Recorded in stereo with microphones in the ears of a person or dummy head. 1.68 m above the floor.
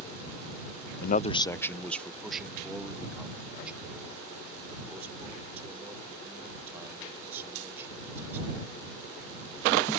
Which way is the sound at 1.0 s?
65° left (ahead or behind).